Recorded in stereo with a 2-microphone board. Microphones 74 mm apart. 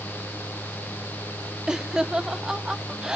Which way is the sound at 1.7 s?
10° right (ahead or behind).